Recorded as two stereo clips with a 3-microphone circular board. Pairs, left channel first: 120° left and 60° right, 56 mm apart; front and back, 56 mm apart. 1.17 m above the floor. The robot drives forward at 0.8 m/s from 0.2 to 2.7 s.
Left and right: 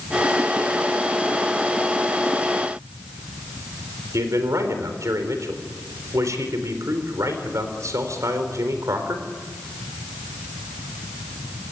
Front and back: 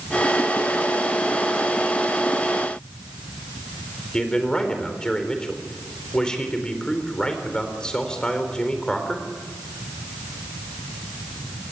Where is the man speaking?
75° right, 4 m.